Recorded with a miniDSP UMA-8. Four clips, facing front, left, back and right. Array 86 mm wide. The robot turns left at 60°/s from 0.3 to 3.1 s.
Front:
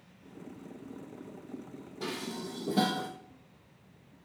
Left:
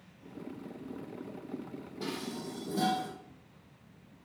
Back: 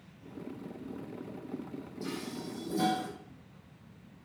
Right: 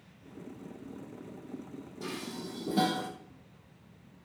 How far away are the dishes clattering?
About 3 m.